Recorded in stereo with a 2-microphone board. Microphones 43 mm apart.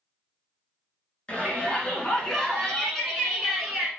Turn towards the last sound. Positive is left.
turn(degrees=-5)  # may be behind; listen again after turning